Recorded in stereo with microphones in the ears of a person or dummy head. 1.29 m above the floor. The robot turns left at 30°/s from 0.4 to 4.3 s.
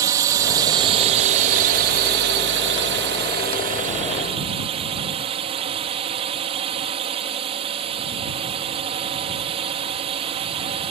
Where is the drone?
15° right; by 10.9 s 130° right.